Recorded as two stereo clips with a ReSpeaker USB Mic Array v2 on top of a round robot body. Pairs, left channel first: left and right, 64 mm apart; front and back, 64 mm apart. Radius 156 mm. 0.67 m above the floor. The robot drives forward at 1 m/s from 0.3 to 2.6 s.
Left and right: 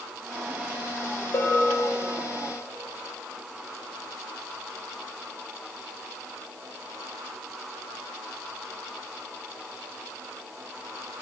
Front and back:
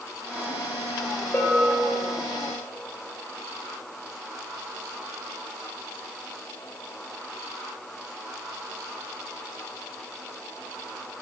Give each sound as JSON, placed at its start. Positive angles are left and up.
{"t": 1.3, "sound": "a bell", "azimuth_deg": 60, "distance_m": 1.1}